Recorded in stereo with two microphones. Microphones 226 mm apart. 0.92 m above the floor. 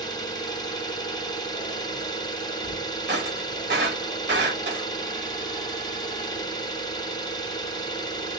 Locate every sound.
0.0 s an engine running: 20° left (ahead or behind), 0.8 m
3.1 s breaking glass: 50° right (ahead or behind), 1.1 m